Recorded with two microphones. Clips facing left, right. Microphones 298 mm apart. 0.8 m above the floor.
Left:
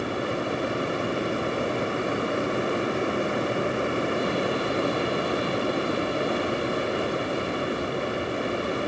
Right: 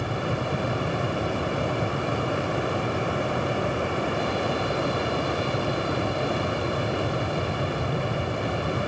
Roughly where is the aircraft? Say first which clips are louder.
Left 1 dB; right.